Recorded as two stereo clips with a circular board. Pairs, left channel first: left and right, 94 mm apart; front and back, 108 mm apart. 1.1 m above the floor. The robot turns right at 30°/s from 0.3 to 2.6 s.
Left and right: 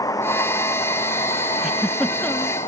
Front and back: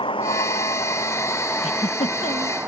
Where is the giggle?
5° right; by 2.6 s 25° left.